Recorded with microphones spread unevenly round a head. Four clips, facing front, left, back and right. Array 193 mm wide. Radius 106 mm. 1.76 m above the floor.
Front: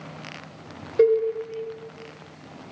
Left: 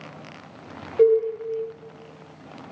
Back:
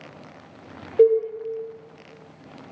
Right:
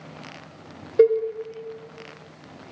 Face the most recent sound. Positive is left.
turn(degrees=-100)